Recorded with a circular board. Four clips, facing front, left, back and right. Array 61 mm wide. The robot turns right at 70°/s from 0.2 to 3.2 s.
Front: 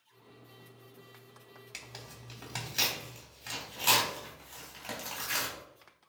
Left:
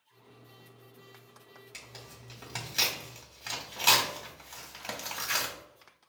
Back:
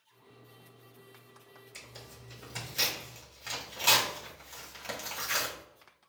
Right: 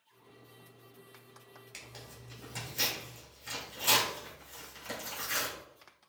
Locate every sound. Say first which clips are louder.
1.7 s tearing paper: even, front 2 dB; straight ahead, 2.5 m; by 5.5 s 105° left, 2.5 m